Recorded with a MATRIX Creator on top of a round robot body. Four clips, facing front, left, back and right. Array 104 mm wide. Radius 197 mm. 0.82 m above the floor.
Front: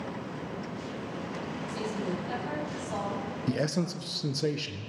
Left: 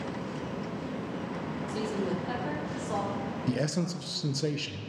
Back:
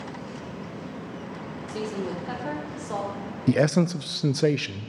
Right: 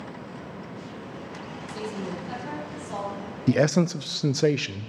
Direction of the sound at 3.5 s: 130° right.